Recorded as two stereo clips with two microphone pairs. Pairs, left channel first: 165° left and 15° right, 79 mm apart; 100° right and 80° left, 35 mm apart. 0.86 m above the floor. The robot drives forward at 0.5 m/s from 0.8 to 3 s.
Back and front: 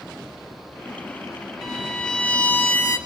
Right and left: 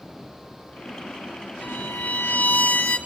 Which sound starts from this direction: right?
A violin, at 1.6 s.